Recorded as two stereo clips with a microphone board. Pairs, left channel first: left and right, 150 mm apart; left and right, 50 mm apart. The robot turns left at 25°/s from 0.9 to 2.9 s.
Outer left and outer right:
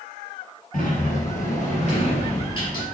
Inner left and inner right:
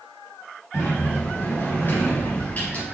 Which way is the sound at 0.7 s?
80° left.